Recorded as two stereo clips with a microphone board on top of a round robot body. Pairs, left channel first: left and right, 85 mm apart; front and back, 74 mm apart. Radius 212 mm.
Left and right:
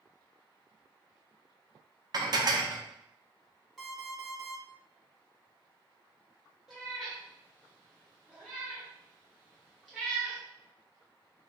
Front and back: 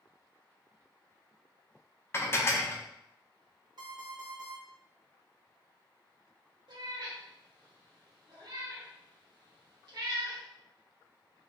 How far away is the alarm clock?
About 1.4 m.